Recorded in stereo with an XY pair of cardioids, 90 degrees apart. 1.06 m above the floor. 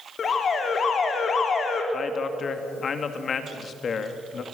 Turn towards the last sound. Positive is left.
turn(degrees=55)